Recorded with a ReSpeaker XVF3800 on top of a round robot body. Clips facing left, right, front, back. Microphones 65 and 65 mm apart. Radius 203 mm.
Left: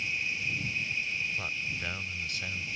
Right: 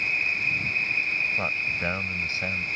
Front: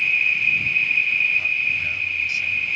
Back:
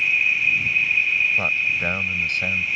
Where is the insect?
95° right.